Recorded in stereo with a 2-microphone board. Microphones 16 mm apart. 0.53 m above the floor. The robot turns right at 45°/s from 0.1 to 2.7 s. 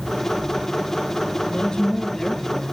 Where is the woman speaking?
130° left, 8.5 m; by 2.7 s 175° right, 8.5 m.